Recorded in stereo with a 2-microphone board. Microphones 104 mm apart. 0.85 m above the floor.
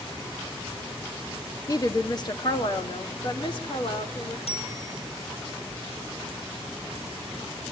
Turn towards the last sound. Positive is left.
turn(degrees=70)  # may be behind; listen again after turning